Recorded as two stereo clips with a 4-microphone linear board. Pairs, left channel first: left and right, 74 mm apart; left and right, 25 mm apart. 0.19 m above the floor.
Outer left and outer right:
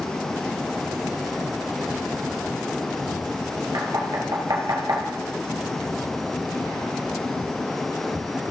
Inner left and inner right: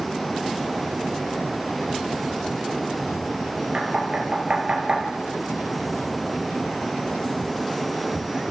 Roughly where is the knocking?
Right.